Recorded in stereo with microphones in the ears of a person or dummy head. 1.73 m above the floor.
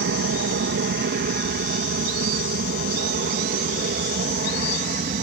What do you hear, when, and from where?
0.0 s an aircraft: 60° right (ahead or behind); by 5.2 s 45° right (ahead or behind)